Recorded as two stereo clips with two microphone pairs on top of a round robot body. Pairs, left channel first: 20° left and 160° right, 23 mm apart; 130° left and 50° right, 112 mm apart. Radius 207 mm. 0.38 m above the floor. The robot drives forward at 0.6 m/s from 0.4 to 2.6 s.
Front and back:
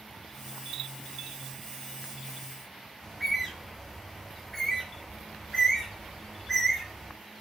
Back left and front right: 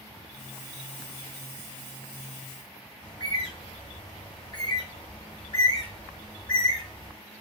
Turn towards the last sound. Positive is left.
turn(degrees=105)